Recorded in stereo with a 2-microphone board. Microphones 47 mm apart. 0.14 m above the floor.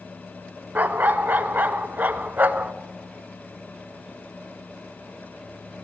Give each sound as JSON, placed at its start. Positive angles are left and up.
{"t": 0.8, "sound": "a dog barking", "side_deg": -40, "distance_m": 0.5}